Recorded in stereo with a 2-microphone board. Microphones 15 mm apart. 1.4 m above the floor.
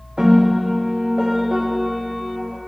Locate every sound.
0.2 s a piano: 35° right (ahead or behind), 0.7 m